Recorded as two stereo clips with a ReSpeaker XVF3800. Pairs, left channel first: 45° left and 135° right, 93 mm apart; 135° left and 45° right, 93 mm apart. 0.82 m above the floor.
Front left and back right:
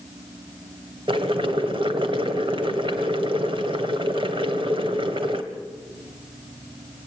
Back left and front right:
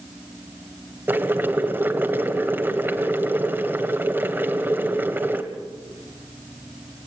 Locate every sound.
1.1 s boiling: 115° right, 1.7 m